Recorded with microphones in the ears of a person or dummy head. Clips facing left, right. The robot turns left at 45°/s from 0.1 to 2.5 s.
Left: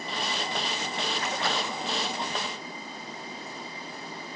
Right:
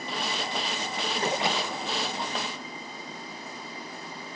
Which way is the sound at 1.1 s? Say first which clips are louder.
Right 5 dB; 145° right.